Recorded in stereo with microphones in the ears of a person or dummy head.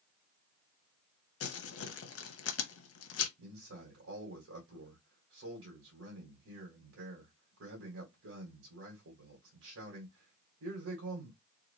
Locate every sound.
1.4 s crumpling: 80° left, 0.8 m
3.4 s a man speaking: 85° right, 1.4 m